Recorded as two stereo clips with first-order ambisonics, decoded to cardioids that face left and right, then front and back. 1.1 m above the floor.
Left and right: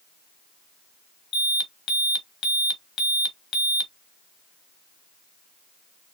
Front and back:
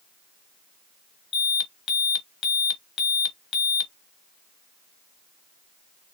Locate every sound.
1.3 s an alarm: 45° left, 1.4 m